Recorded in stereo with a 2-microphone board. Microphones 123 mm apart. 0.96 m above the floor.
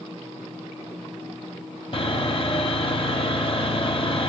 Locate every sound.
1.9 s sawing: 45° left (ahead or behind), 1.1 m